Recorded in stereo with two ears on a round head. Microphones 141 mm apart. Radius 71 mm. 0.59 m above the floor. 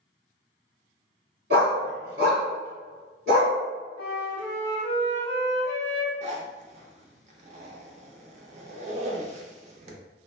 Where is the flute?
75° right (ahead or behind), 1.9 m.